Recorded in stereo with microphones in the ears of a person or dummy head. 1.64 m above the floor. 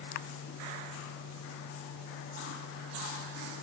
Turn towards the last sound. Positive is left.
No sound to turn to.